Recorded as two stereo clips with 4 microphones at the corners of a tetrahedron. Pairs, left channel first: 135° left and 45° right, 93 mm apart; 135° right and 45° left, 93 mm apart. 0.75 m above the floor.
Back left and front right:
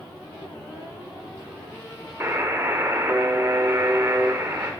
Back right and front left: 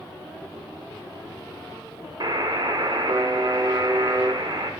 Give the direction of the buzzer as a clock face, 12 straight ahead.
12 o'clock.